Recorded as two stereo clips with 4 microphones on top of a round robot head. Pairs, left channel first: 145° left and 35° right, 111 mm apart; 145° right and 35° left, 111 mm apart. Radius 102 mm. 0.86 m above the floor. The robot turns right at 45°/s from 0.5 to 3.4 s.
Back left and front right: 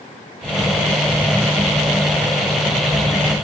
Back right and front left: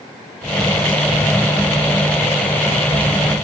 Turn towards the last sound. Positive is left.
No sound to turn to.